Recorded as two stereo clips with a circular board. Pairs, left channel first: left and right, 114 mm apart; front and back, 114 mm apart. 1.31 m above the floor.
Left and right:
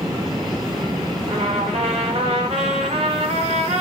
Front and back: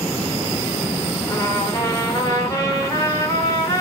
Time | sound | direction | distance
1.3 | a trumpet | 60° right | 4.5 m